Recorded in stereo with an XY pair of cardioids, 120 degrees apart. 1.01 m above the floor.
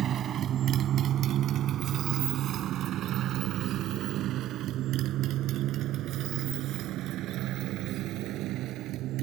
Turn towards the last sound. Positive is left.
turn(degrees=-75)